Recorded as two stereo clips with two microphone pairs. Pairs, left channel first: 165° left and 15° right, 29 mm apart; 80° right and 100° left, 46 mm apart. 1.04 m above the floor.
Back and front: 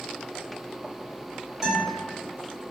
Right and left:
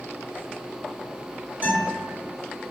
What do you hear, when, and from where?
1.6 s a guitar: 60° left, 1.5 m